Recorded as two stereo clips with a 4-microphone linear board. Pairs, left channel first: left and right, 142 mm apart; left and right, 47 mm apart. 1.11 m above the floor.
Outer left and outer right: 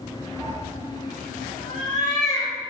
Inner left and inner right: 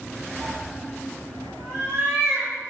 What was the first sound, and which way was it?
A cat meowing, 35° right (ahead or behind).